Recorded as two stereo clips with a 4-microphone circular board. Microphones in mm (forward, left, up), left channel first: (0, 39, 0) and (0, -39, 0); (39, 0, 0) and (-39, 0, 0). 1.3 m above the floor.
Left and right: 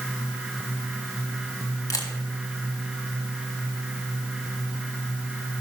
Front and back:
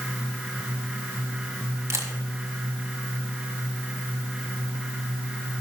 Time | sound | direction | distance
1.9 | a camera shutter | 130° left | 1.7 m